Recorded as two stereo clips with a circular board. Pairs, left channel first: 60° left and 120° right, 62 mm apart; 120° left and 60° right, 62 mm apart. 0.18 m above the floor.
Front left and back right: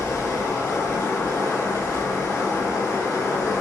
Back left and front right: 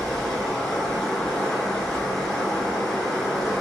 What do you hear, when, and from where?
0.0 s running water: 40° left, 1.0 m